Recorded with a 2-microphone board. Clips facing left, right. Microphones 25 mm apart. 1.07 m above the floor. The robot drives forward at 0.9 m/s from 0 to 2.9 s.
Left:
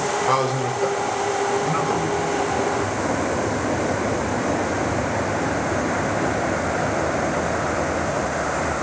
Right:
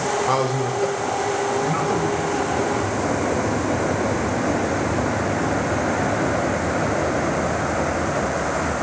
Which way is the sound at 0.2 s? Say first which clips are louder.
Even; 5° left (ahead or behind).